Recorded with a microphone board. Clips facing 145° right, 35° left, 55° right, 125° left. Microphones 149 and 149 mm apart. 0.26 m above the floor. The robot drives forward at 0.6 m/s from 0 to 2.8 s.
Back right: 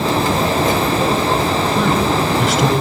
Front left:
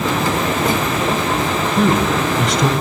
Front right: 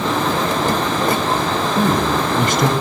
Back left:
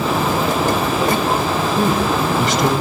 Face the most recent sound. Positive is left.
turn(degrees=-65)